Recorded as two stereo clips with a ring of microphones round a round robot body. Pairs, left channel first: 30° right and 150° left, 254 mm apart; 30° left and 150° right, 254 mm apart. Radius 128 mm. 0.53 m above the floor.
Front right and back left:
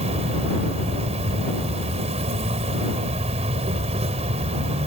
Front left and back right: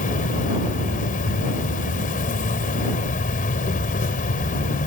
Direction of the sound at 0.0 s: 85° left.